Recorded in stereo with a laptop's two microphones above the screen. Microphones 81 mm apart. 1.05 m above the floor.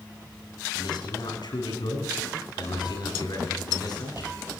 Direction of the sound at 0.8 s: 70° left (ahead or behind).